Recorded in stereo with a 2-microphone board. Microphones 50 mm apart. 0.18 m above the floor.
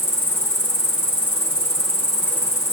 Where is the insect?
60° left (ahead or behind), 1.0 m.